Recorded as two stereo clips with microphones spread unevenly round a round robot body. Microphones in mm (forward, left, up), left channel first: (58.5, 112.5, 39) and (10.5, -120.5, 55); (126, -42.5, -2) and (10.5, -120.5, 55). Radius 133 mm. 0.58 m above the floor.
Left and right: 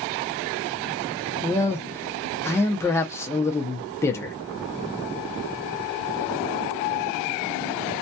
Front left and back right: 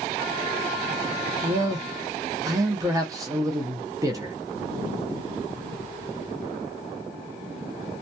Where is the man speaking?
125° left, 0.6 m.